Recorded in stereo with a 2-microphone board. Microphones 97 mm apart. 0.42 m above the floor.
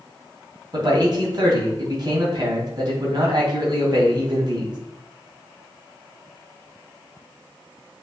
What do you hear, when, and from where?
0.7 s a man speaking: 45° right (ahead or behind), 2.5 m